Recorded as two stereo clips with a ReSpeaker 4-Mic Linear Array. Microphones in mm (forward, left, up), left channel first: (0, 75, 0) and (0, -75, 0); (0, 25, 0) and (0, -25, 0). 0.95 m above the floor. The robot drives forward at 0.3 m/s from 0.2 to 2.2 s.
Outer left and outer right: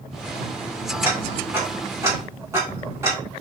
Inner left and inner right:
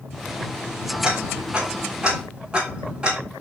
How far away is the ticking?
About 3 m.